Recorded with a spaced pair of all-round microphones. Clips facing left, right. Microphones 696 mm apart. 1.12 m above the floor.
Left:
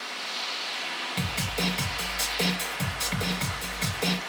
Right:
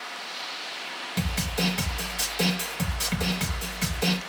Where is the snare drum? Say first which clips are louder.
Right 3 dB; 45° right (ahead or behind), 0.7 m.